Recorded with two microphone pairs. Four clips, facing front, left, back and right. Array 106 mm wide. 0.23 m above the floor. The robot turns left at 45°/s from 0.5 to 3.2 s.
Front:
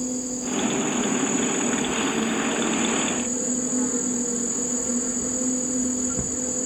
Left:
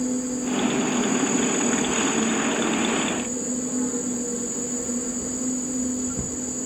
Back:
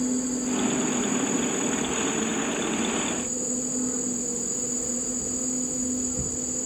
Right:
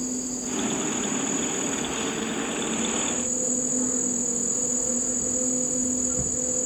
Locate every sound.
0.0 s an insect: 135° left, 3.5 m; by 6.7 s 15° left, 3.5 m